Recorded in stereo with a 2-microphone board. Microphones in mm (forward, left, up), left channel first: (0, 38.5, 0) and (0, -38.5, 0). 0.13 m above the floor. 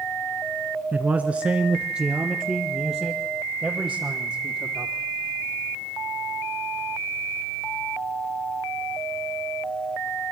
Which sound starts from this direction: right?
A man speaking, at 0.9 s.